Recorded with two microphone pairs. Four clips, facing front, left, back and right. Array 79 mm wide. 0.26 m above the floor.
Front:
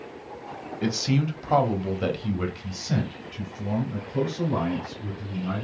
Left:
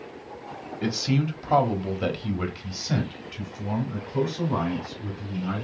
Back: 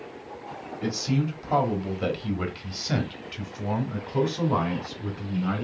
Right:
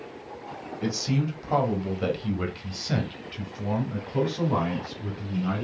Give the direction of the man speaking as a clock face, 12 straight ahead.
11 o'clock.